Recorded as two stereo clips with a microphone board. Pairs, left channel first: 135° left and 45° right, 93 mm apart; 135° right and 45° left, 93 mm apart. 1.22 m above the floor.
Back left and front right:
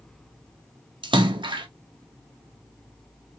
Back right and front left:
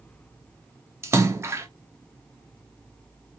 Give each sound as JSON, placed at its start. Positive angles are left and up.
{"t": 1.0, "sound": "a splash", "azimuth_deg": -15, "distance_m": 0.5}